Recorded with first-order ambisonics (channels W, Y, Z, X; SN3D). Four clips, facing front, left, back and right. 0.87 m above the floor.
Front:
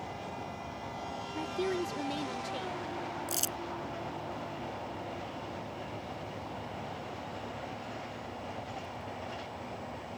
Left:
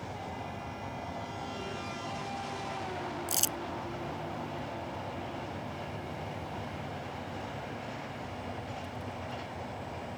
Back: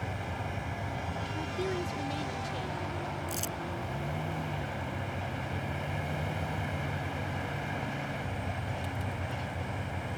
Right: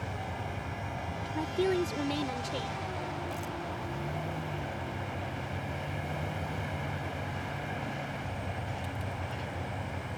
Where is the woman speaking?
85° right.